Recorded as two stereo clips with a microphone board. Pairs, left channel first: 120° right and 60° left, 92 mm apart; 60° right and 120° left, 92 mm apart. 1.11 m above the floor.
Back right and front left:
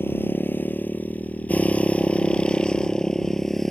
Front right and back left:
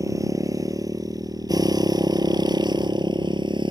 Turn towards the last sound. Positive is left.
turn(degrees=155)